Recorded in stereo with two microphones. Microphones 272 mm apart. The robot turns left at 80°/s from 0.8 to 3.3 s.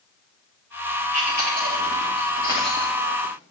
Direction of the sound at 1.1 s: 60° right (ahead or behind).